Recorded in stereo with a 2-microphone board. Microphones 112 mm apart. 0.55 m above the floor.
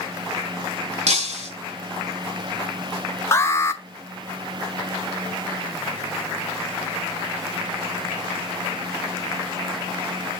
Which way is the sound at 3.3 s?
25° left (ahead or behind).